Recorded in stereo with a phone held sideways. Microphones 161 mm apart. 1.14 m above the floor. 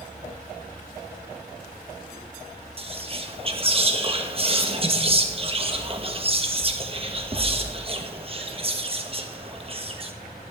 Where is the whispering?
35° right (ahead or behind), 1.2 m.